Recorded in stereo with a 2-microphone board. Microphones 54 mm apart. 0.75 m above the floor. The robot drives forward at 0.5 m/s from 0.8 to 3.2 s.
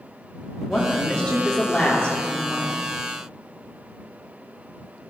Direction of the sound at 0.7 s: 20° left (ahead or behind).